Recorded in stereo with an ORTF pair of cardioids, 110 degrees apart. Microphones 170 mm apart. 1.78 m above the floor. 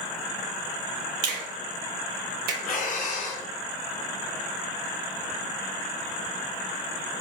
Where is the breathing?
50° left, 0.9 m.